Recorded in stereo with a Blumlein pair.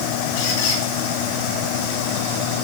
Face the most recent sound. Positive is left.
turn(degrees=50)